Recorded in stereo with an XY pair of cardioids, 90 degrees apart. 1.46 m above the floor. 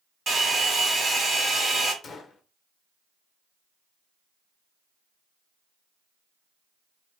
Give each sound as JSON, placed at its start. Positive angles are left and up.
{"t": 0.3, "sound": "a hair dryer", "azimuth_deg": -50, "distance_m": 2.0}
{"t": 2.0, "sound": "a gunshot", "azimuth_deg": 55, "distance_m": 0.9}